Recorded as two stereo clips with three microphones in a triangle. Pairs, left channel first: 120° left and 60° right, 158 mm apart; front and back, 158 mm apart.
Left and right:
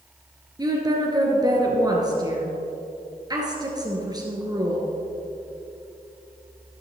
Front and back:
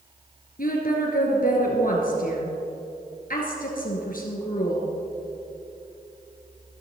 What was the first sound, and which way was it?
A woman speaking, straight ahead.